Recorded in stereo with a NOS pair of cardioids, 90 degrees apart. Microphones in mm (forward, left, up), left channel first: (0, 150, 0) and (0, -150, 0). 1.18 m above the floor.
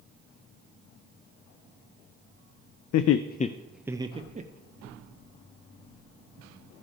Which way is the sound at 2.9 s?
65° left.